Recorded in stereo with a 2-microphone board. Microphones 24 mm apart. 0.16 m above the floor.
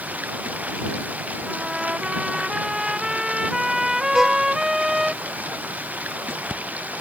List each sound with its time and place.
0.0 s running water: 80° right
1.5 s a trumpet: 25° right (ahead or behind)
4.1 s a violin: 20° right (ahead or behind)